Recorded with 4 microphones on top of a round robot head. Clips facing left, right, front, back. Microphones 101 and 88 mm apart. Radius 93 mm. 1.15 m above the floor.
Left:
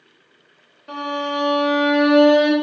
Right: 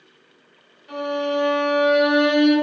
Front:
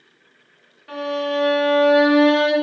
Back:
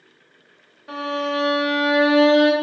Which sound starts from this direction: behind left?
A violin, at 0.9 s.